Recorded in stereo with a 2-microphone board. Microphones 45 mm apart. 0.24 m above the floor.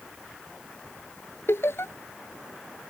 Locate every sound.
1.5 s laughter: 70° left (ahead or behind)